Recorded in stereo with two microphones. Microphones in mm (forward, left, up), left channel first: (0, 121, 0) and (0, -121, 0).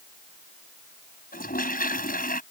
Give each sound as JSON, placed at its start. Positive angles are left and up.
{"t": 1.3, "sound": "a toilet flushing", "side_deg": 35}